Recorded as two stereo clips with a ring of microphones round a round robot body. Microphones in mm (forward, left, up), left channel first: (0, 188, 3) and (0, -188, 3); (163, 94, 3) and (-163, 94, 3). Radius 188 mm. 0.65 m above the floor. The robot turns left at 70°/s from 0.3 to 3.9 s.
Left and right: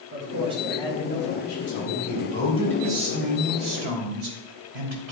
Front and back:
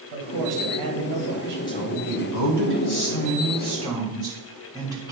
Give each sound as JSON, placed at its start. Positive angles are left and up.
{"t": 0.1, "sound": "a man speaking", "azimuth_deg": -150, "distance_m": 3.5}
{"t": 1.7, "sound": "a woman speaking", "azimuth_deg": 75, "distance_m": 3.0}